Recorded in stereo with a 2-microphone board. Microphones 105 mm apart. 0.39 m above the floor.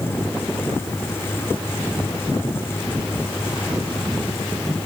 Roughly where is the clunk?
No clunk in this recording.